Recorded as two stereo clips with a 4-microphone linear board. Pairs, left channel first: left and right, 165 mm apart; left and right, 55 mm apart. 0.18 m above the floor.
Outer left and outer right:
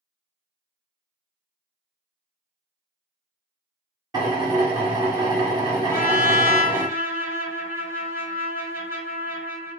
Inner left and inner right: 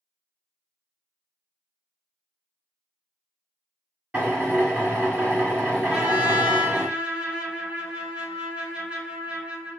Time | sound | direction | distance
4.1 | a drill | 25° right (ahead or behind) | 1.9 m
5.9 | a trumpet | 15° right (ahead or behind) | 1.1 m